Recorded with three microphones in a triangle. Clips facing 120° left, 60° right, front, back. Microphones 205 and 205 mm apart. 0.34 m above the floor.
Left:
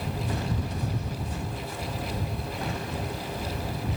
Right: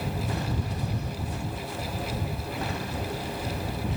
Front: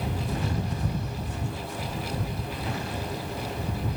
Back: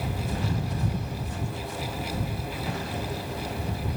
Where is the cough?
No cough in this recording.